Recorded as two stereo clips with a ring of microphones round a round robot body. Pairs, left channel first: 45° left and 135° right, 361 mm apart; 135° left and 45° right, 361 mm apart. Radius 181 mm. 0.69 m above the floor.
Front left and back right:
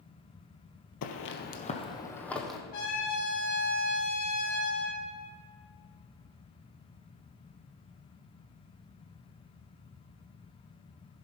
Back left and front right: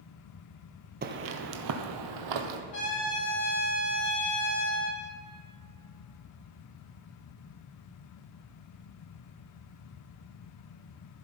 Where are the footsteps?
15° left, 1.0 m; by 2.6 s 45° right, 1.7 m.